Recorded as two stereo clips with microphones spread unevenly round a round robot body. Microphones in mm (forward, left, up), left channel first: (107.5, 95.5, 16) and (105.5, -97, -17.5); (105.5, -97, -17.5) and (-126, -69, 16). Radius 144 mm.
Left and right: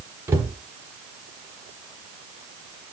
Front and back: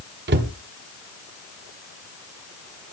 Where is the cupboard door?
155° right, 1.0 m.